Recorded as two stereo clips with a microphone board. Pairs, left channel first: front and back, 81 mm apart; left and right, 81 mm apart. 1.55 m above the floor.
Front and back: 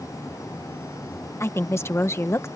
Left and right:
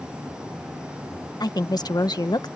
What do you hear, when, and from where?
1.4 s a woman speaking: 55° left